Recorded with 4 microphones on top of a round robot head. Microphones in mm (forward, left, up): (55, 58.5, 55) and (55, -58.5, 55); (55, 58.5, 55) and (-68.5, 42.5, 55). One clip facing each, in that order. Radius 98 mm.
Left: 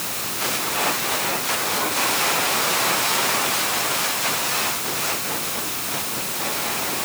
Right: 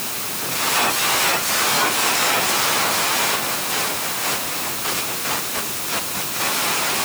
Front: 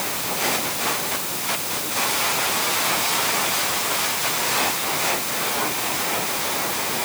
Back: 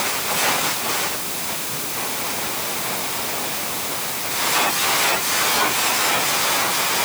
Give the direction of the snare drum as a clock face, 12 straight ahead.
No snare drum in this recording.